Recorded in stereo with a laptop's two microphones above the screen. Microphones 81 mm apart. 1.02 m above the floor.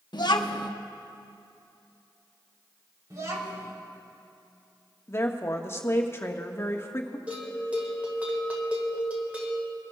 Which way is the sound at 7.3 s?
15° right (ahead or behind).